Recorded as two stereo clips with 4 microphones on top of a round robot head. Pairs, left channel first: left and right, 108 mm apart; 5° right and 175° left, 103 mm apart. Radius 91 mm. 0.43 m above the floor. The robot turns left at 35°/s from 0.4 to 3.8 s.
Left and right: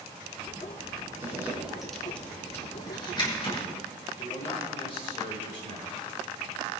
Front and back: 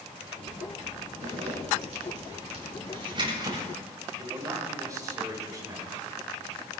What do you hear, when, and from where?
1.2 s a zipper: 155° right, 6.5 m; by 3.6 s 120° left, 6.5 m
4.2 s a man speaking: 120° left, 5 m